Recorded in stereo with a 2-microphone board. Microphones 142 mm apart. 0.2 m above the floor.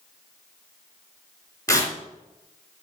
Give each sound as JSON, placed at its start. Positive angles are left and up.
{"t": 1.7, "sound": "tearing paper", "side_deg": 25, "distance_m": 2.5}